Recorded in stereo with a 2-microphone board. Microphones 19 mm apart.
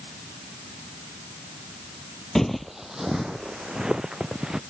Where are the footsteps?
20° left (ahead or behind); by 4.6 s 45° right (ahead or behind).